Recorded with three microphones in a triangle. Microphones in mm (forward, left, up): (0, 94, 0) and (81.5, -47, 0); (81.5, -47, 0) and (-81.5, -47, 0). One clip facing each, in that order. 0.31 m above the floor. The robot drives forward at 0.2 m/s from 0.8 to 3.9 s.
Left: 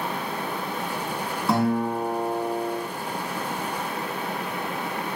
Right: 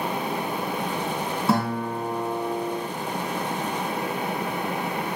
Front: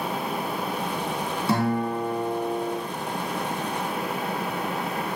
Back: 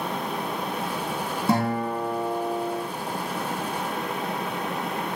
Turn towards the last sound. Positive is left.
turn(degrees=-150)